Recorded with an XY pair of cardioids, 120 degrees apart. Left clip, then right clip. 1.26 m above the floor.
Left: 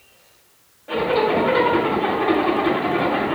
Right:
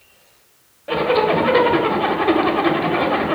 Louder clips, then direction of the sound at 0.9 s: Right 2 dB; 40° right.